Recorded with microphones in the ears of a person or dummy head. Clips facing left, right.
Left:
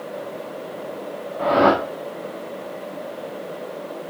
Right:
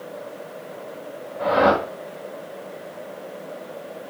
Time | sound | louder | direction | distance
1.4 | a whoosh | left 1 dB | 45° left (ahead or behind) | 2.5 m